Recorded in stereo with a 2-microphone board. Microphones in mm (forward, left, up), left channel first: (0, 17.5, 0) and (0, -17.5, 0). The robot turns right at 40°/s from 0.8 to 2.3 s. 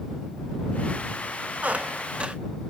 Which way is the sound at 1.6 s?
40° right (ahead or behind).